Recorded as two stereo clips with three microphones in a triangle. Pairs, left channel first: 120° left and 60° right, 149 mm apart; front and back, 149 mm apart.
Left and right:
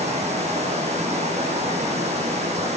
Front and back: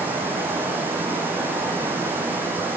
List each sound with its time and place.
0.0 s running water: 105° right, 5.5 m